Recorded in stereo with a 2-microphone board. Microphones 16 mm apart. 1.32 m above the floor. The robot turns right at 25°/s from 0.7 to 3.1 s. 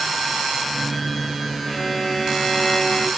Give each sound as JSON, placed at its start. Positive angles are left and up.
{"t": 1.7, "sound": "a violin", "azimuth_deg": -15, "distance_m": 7.5}